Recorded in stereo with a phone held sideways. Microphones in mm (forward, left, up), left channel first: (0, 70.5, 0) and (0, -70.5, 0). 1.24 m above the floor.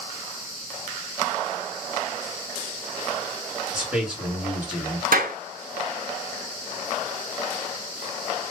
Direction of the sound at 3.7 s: 10° right (ahead or behind).